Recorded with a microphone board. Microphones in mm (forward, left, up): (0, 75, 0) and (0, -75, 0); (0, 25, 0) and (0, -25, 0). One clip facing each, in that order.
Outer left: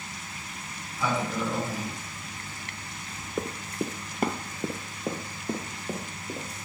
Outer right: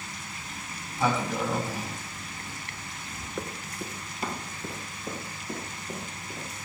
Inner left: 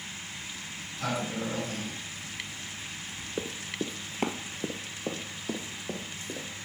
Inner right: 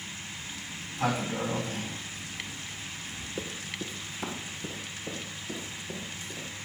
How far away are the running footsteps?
About 0.5 m.